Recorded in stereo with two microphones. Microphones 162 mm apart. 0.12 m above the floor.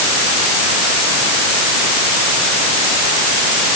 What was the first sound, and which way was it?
Only background noise.